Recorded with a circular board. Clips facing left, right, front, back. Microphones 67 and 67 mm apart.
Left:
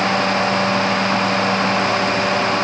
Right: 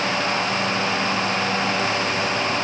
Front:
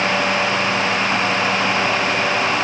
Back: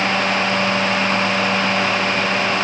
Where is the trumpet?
No trumpet in this recording.